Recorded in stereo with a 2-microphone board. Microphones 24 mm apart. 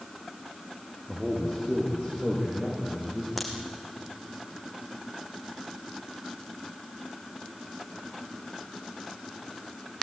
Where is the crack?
5° right (ahead or behind), 3.5 m.